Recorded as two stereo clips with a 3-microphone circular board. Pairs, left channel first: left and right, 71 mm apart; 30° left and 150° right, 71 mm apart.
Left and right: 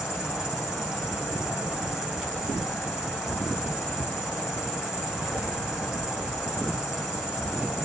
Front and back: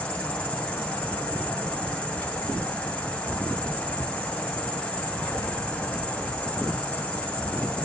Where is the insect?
25° right, 1.1 m.